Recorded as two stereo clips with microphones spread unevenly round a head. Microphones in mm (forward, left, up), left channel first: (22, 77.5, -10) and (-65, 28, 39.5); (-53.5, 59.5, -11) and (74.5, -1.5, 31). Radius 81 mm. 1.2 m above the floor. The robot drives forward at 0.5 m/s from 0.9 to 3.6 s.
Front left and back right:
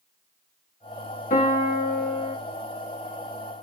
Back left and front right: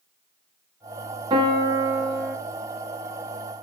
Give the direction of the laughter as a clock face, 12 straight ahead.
I don't hear laughter.